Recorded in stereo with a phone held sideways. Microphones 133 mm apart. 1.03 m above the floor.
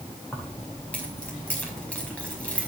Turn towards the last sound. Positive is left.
turn(degrees=10)  # may be behind; listen again after turning